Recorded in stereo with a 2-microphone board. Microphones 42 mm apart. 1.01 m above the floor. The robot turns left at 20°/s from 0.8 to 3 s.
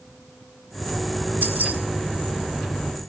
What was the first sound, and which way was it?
Keys jangling, 55° right (ahead or behind).